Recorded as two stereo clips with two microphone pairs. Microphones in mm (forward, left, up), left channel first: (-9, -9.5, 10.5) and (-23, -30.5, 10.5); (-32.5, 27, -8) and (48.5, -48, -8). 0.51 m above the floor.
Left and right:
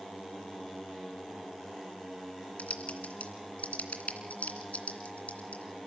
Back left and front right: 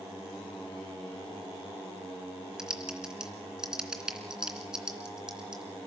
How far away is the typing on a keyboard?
About 2.5 m.